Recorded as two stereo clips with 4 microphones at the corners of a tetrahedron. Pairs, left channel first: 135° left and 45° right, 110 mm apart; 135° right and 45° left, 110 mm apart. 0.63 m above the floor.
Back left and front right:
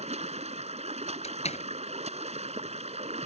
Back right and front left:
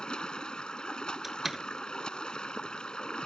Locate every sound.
0.0 s running water: 55° right
1.2 s a door slam: 135° left